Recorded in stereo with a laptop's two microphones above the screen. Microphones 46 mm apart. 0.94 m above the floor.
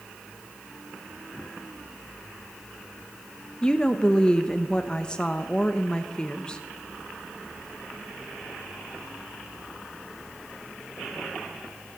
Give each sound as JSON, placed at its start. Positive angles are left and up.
{"t": 3.6, "sound": "a woman speaking", "side_deg": 15, "distance_m": 0.8}